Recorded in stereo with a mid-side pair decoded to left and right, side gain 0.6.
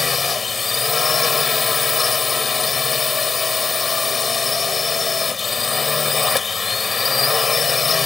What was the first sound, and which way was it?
A drone, 25° left.